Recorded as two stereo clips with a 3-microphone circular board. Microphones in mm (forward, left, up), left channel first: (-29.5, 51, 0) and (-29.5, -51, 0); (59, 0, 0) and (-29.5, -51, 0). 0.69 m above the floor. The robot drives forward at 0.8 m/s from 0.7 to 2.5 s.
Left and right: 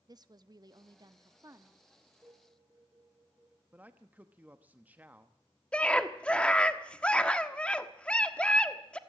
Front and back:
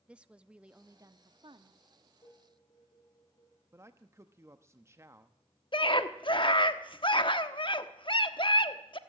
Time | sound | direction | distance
0.1 | a woman speaking | 75° right | 0.6 m
2.2 | dishes clattering | 25° right | 8.5 m
3.7 | a man speaking | 145° right | 0.9 m
5.7 | a scream | 15° left | 1.3 m